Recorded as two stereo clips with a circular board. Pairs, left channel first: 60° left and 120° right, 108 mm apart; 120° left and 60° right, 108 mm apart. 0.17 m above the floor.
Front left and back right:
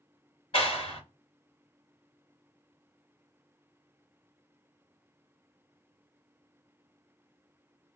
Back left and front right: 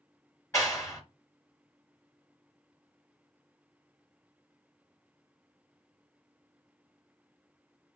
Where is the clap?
60° left, 1.8 m.